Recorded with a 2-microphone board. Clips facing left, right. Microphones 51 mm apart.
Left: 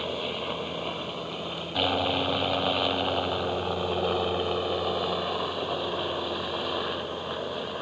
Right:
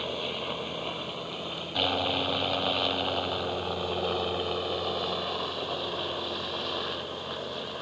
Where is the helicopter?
5° left (ahead or behind); by 7.8 s 15° left (ahead or behind).